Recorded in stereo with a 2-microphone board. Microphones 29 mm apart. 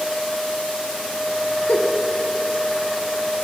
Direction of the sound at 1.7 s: 70° left (ahead or behind).